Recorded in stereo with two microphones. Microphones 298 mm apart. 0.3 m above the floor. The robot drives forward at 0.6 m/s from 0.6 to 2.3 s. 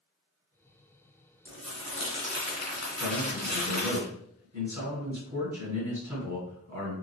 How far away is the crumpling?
About 2 m.